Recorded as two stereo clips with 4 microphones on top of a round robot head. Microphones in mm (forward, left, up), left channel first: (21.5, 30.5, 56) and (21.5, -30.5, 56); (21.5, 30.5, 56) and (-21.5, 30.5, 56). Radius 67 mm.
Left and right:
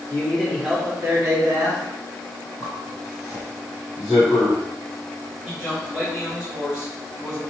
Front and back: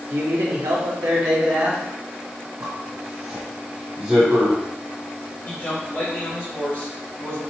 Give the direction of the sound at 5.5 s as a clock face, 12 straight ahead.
12 o'clock.